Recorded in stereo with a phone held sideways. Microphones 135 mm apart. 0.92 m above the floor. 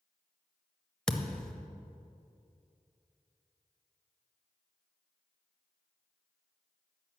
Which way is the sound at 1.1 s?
5° left (ahead or behind).